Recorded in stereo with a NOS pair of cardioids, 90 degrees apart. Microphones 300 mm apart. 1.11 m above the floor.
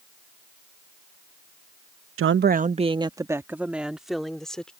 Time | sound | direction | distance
2.2 | a woman speaking | 45° right | ?